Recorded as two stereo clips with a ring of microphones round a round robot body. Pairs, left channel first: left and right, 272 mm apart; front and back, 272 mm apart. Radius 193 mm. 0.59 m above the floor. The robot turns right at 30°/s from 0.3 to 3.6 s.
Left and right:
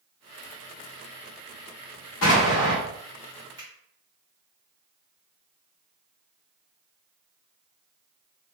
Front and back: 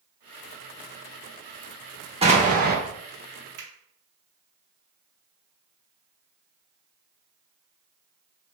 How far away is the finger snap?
About 0.9 m.